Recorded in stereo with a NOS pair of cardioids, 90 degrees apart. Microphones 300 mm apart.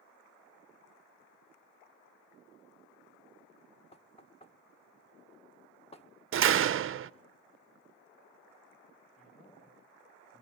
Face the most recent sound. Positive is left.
turn(degrees=25)